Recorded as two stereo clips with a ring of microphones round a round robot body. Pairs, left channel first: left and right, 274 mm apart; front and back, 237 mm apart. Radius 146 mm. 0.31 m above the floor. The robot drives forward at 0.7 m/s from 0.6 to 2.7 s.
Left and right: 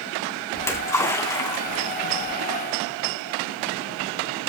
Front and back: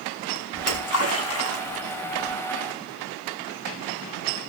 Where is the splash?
10° left, 3 m; by 2.4 s 20° left, 1.9 m.